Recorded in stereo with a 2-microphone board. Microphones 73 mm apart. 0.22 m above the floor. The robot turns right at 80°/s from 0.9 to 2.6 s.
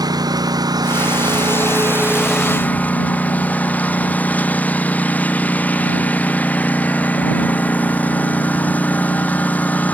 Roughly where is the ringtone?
I don't hear a ringtone.